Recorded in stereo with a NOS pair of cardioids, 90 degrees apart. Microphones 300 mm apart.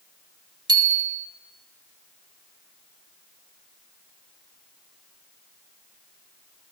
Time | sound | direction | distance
0.7 | a bicycle bell | 15° right | 2.5 m